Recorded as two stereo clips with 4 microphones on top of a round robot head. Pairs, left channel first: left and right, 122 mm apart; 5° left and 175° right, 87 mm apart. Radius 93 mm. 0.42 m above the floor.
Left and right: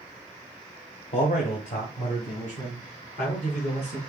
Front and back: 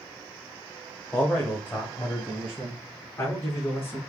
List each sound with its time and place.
1.1 s a man speaking: 80° left, 1.4 m; by 4.0 s 70° left, 4.5 m